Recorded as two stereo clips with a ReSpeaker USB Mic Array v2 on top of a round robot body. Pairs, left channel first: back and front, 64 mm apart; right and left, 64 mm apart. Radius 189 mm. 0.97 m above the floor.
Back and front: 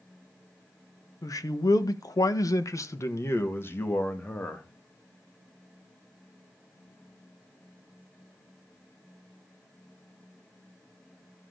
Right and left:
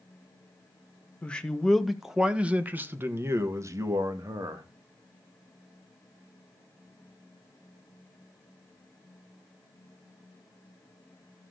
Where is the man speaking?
160° right, 1.6 m; by 4.7 s 115° left, 2.5 m.